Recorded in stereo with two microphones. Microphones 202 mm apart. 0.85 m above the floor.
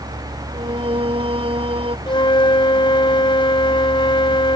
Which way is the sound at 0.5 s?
30° right (ahead or behind).